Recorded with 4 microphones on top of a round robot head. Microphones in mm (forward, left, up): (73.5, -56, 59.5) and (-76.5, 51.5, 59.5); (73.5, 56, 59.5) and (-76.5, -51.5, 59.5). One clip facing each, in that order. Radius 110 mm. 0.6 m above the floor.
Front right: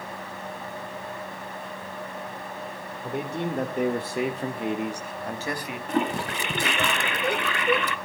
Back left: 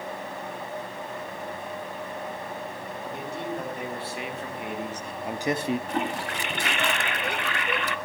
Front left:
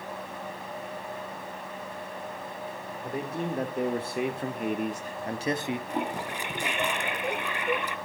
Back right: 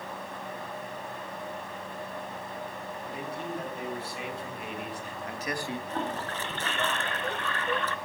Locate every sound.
3.0 s a man speaking: 5° right, 2 m; by 5.8 s 105° left, 1.0 m
5.9 s a toilet flushing: 40° right, 0.7 m